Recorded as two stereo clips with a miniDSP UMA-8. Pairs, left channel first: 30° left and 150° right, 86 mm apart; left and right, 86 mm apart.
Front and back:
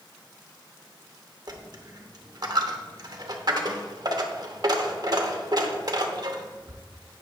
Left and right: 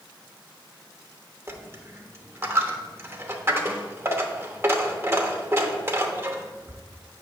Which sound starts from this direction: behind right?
A dropped coin, at 1.5 s.